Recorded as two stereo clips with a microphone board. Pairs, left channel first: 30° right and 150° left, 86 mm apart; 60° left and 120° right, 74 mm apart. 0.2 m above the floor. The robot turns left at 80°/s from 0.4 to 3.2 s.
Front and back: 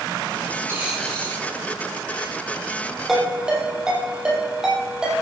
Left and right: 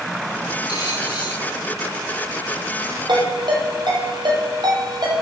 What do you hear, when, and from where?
0.7 s a dropped coin: 85° left, 5 m; by 1.4 s 25° left, 5 m
3.1 s a ringtone: 120° right, 5 m; by 5.2 s 130° right, 5 m